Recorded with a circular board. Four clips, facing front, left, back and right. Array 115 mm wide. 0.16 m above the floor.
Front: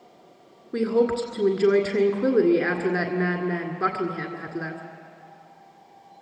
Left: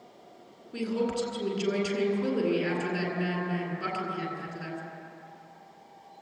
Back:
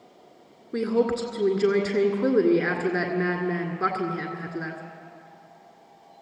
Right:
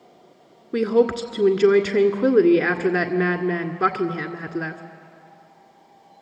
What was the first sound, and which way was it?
A woman speaking, 90° right.